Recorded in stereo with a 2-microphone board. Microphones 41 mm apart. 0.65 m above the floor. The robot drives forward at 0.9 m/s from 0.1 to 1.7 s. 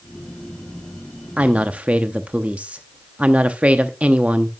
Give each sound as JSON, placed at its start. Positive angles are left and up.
{"t": 1.4, "sound": "a woman speaking", "side_deg": -30, "distance_m": 0.6}